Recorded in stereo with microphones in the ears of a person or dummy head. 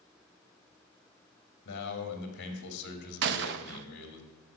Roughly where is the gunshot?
Right.